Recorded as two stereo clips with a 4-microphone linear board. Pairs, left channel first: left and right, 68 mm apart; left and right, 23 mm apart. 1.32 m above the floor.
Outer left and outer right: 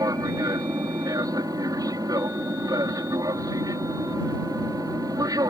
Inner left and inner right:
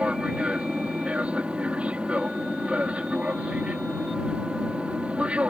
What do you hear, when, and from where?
0.0 s an aircraft: 65° right (ahead or behind)